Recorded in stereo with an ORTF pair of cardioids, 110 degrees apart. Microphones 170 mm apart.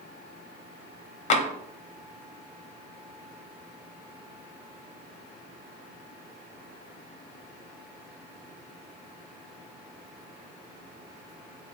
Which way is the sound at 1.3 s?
45° left.